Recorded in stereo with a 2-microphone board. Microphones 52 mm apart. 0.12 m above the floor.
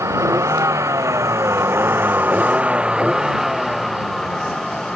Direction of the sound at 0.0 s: 80° right.